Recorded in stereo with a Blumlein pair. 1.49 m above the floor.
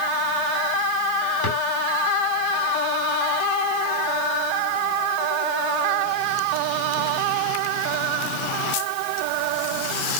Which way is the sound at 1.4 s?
55° left.